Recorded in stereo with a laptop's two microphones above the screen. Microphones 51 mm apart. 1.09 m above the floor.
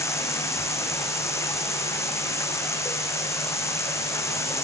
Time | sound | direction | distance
0.0 | running water | 65° left (ahead or behind) | ?